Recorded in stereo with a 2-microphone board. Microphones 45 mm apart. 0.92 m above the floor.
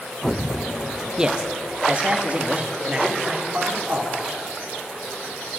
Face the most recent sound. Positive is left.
turn(degrees=-35)  # may be behind; listen again after turning